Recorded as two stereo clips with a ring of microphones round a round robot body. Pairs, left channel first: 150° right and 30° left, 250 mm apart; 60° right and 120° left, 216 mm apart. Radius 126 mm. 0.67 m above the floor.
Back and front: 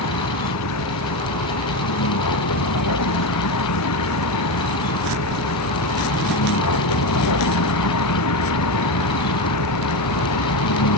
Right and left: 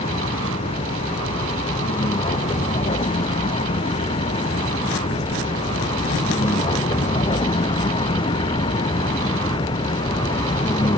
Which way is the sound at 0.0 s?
130° right.